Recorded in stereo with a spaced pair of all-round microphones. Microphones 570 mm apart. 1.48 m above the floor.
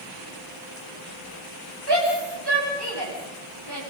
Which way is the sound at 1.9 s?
45° right (ahead or behind).